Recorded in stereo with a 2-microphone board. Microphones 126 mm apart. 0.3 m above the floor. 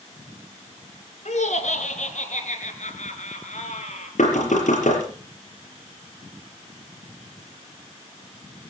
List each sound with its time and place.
1.2 s laughter: 65° left (ahead or behind), 3.5 m; by 4.1 s 70° left (ahead or behind), 5.5 m
4.2 s knocking: 80° left, 6.5 m